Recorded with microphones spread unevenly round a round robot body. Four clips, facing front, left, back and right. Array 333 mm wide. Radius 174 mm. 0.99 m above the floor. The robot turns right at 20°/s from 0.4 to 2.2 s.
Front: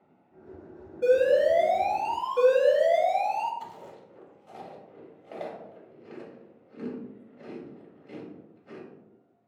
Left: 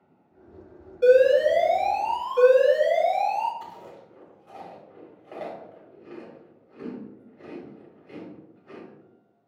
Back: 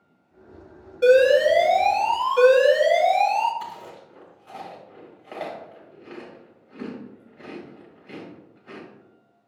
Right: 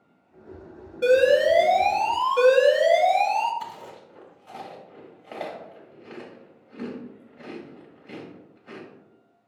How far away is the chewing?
About 2.5 m.